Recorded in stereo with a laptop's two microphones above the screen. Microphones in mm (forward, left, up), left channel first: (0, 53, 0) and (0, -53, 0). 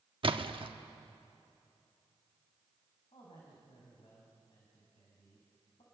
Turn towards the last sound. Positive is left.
turn(degrees=60)  # may be behind; listen again after turning